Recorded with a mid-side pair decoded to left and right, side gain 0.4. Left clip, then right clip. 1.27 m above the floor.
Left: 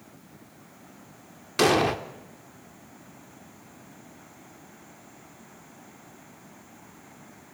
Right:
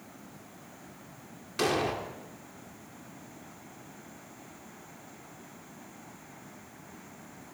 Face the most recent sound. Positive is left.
turn(degrees=60)